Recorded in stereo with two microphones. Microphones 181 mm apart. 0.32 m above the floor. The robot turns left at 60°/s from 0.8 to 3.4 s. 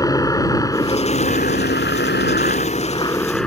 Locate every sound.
0.0 s a helicopter: 160° left; by 3.5 s 5° left